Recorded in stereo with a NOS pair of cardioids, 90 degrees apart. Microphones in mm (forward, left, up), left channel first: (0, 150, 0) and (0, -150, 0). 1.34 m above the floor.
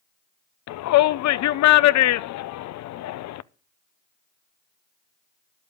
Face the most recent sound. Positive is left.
turn(degrees=70)